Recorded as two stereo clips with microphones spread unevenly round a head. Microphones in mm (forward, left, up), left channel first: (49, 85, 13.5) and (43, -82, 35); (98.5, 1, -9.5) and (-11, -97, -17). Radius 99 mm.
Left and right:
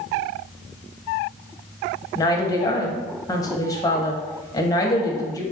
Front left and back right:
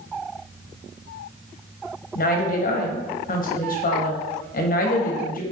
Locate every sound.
2.1 s a woman speaking: 15° left, 0.8 m